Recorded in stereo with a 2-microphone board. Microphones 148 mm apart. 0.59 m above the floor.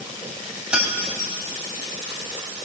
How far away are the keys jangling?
About 3 m.